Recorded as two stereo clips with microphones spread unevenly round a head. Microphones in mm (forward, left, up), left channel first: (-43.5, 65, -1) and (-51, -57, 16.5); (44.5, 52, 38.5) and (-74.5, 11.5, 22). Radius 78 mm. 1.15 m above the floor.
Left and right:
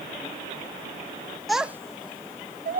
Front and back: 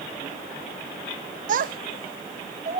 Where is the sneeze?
No sneeze in this recording.